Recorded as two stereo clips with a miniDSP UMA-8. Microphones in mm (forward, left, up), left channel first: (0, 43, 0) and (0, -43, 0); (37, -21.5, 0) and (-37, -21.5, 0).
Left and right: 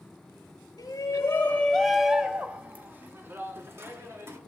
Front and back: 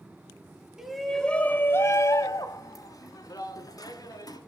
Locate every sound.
0.8 s a shout: 105° left, 1.3 m; by 4.4 s 35° right, 3.5 m